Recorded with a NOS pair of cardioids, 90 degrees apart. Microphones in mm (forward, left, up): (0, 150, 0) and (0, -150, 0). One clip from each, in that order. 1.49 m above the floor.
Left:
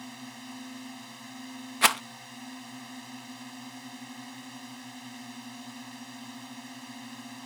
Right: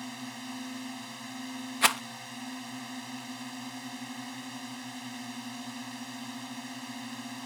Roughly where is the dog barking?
I don't hear a dog barking.